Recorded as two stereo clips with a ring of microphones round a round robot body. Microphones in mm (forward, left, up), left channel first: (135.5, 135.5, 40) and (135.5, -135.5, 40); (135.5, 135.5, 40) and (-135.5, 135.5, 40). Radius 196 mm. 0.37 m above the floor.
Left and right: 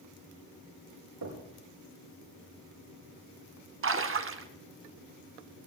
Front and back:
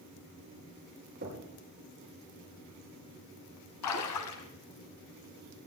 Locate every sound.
1.2 s knocking: 120° right, 5.5 m
3.8 s a splash: 45° right, 1.5 m